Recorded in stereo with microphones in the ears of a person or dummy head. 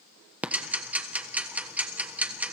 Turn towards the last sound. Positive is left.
turn(degrees=-5)  # may be behind; listen again after turning